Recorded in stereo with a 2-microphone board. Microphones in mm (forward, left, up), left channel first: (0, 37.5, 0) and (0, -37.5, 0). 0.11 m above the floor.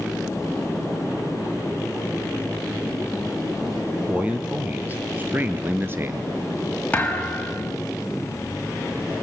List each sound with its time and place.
4.1 s a man speaking: 15° right (ahead or behind), 2.5 m; by 6.3 s 35° right (ahead or behind), 1.4 m
6.9 s a thud: 20° left (ahead or behind), 3.5 m